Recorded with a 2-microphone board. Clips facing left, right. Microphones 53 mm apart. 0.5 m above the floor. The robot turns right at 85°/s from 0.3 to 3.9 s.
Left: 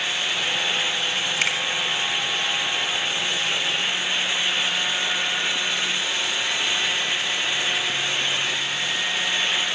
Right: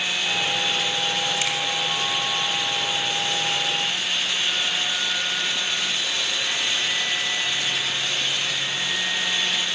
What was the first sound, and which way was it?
A finger snap, 45° left (ahead or behind).